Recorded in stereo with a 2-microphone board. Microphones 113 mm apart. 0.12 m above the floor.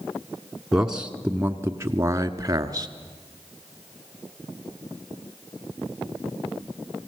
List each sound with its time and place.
0.7 s a man speaking: 5° right (ahead or behind), 1.1 m; by 2.9 s 30° right (ahead or behind), 1.4 m